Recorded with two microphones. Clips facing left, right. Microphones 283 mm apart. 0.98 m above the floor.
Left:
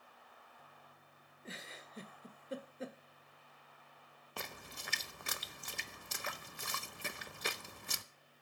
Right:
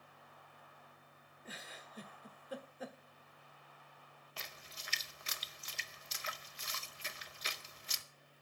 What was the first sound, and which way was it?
A giggle, 25° left (ahead or behind).